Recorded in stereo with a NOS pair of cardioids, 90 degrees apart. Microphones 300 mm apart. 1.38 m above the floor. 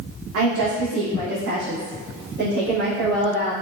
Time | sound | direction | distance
0.3 | a woman speaking | 60° right | 0.9 m